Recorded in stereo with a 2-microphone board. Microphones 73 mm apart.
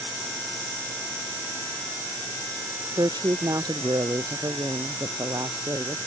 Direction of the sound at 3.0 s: 70° right (ahead or behind).